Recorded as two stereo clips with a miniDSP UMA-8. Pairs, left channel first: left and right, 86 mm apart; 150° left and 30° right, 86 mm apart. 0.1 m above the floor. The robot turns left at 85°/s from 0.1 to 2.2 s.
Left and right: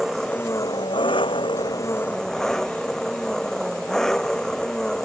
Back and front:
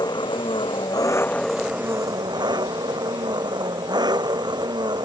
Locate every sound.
0.0 s an engine running: 175° right; by 5.1 s 5° left